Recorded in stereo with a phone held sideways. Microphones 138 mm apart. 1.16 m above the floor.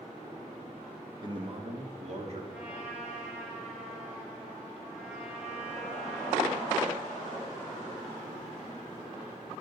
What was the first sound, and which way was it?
A man speaking, 30° right (ahead or behind).